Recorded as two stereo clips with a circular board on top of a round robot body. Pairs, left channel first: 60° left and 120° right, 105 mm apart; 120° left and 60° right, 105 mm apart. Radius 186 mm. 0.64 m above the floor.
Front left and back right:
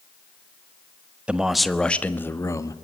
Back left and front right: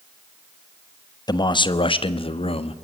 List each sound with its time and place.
1.3 s a man speaking: 160° left, 1.5 m; by 2.8 s 115° left, 1.7 m